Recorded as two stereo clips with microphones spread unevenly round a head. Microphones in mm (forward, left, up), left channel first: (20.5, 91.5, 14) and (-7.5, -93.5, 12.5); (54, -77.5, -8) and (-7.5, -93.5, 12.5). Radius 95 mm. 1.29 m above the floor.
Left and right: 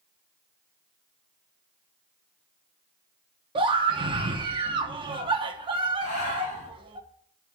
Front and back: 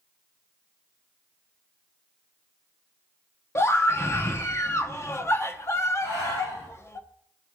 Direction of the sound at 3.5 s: 35° right.